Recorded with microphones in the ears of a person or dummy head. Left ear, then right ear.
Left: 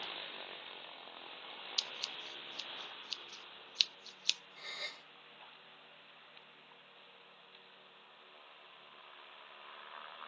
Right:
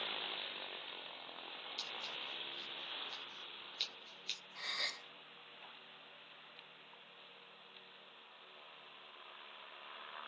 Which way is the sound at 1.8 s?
55° left (ahead or behind).